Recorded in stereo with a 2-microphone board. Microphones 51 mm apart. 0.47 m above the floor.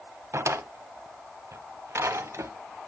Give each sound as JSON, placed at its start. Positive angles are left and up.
{"t": 0.3, "sound": "a drawer", "side_deg": -65, "distance_m": 1.4}